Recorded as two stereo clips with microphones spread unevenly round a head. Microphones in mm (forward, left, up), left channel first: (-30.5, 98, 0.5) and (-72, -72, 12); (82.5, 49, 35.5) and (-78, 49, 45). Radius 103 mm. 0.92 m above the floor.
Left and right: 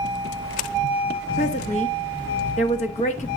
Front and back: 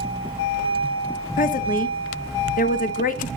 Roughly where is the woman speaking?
Ahead left.